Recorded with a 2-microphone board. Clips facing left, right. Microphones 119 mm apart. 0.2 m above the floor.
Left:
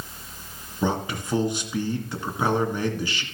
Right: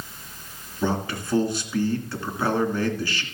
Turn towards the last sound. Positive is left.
turn(degrees=20)  # may be behind; listen again after turning